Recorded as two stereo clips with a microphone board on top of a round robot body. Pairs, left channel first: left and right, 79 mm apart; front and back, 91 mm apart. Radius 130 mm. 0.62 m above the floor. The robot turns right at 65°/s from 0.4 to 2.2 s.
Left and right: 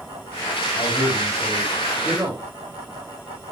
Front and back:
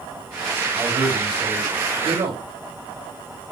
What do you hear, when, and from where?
0.7 s a man speaking: 105° left, 4.5 m; by 2.4 s 160° right, 4.5 m